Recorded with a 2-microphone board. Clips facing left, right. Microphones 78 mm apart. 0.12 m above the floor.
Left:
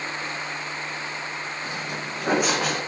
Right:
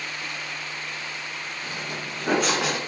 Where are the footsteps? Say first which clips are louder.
Left 2 dB; 20° left (ahead or behind), 1.4 m; by 2.8 s 5° right (ahead or behind), 1.0 m.